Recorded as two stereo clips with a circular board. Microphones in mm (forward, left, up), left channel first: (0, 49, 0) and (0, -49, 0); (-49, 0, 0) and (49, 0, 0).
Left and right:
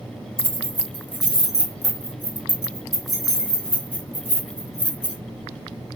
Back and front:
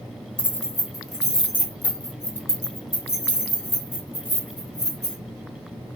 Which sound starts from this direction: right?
Keys jangling, at 0.4 s.